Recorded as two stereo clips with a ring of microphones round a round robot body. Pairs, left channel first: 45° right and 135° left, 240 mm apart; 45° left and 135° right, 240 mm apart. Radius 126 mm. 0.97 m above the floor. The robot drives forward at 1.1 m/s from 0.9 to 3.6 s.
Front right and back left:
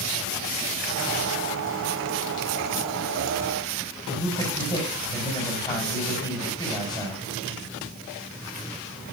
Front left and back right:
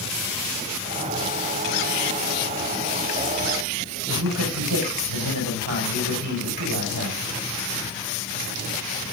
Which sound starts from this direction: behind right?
A man speaking, at 4.1 s.